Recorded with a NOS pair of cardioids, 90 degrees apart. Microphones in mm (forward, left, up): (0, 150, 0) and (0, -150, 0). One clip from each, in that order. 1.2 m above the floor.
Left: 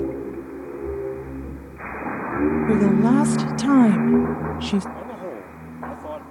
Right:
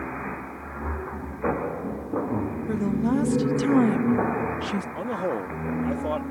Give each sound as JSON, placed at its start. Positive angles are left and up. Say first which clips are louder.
{"t": 2.7, "sound": "a woman speaking", "louder": "left 6 dB", "azimuth_deg": 50}
{"t": 5.0, "sound": "a man speaking", "louder": "right 5 dB", "azimuth_deg": -35}